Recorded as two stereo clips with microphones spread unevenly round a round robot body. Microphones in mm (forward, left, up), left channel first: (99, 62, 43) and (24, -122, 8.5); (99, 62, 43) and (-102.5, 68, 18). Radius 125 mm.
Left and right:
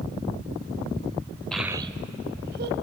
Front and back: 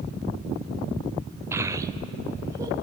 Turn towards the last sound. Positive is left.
turn(degrees=-110)